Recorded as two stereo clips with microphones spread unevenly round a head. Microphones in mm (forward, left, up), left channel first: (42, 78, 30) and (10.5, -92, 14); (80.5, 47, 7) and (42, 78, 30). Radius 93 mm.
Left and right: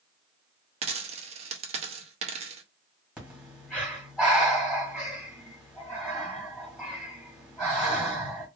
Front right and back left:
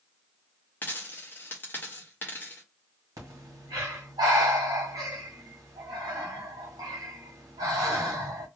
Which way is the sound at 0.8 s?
120° right.